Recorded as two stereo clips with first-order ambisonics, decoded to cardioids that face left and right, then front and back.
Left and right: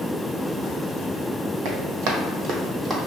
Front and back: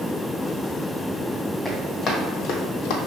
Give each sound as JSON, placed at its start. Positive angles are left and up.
{"t": 1.6, "sound": "running footsteps", "azimuth_deg": -90, "distance_m": 1.5}